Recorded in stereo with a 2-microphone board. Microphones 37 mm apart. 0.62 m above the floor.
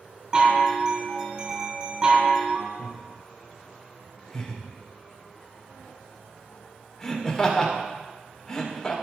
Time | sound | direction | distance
0.3 | a chime | 30° right (ahead or behind) | 3 m
2.8 | laughter | 15° left (ahead or behind) | 2.5 m